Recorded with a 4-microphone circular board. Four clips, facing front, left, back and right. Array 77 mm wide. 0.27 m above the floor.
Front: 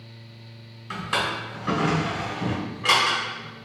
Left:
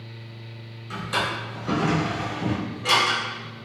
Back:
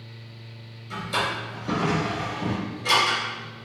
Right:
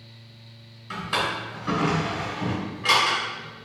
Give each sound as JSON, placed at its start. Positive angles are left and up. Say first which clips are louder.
{"t": 0.9, "sound": "a drawer", "louder": "even, front 1 dB", "azimuth_deg": -25, "distance_m": 1.3}